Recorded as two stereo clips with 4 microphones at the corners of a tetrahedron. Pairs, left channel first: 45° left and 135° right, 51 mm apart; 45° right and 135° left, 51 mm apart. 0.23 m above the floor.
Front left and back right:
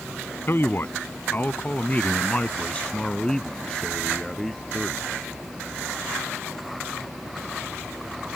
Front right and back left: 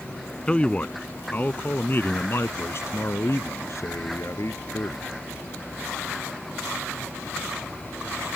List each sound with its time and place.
0.5 s a man speaking: 20° left; by 5.0 s 45° right